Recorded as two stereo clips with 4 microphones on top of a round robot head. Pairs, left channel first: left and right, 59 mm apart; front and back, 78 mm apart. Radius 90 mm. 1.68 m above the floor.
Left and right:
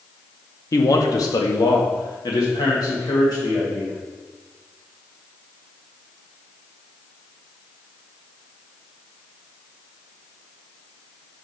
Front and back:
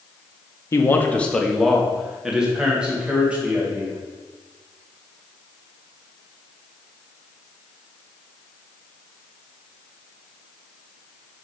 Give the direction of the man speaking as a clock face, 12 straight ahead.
10 o'clock.